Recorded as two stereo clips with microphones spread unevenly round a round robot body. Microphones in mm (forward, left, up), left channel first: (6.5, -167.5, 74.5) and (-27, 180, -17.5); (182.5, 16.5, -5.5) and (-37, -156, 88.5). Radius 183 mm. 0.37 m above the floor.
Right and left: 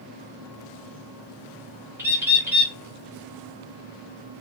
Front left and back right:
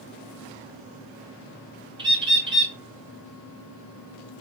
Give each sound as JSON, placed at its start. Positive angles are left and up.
{"t": 2.0, "sound": "a bird", "azimuth_deg": 120, "distance_m": 1.1}